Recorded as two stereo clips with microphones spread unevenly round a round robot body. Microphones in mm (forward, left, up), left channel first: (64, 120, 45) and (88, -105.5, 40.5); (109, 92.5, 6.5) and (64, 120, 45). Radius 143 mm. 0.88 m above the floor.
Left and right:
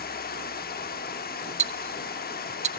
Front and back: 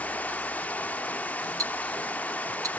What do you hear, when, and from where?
0.0 s running water: 45° left, 1.0 m
1.6 s ticking: 140° right, 0.7 m